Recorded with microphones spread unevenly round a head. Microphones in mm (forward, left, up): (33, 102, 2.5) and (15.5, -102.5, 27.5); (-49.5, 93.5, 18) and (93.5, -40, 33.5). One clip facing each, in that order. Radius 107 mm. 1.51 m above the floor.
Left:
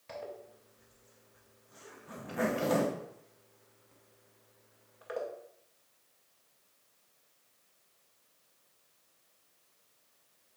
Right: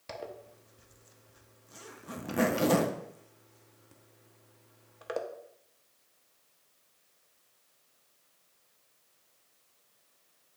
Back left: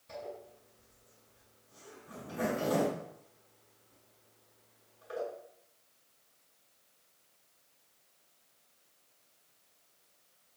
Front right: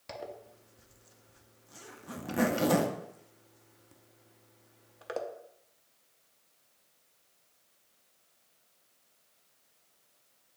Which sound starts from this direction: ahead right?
A zipper, at 0.1 s.